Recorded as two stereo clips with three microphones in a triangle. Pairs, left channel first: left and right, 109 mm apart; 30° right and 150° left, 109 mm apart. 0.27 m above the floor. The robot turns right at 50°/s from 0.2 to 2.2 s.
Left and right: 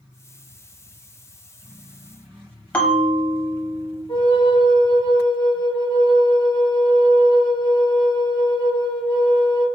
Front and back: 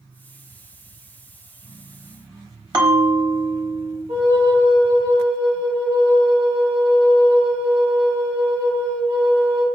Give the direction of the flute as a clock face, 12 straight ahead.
8 o'clock.